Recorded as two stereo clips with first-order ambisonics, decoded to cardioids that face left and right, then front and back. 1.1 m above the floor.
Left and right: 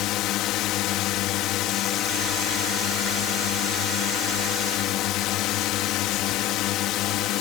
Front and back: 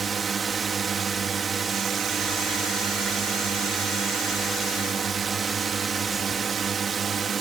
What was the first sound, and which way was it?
A drone, 115° left.